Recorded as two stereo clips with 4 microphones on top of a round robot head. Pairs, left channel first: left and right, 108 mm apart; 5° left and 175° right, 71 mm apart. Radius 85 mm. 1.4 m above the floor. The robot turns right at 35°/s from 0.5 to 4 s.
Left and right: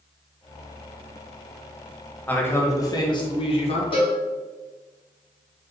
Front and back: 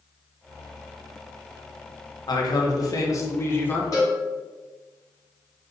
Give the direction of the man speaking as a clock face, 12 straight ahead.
11 o'clock.